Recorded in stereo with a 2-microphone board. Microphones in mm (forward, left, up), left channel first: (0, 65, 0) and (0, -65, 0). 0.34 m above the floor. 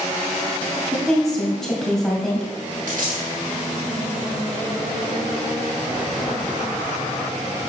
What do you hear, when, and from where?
0.9 s a woman speaking: 5° left (ahead or behind), 2.0 m
2.9 s a dropped coin: 80° right, 1.8 m